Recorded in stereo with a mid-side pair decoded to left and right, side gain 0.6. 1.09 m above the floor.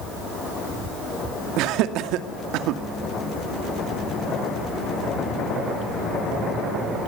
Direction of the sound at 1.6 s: 70° right.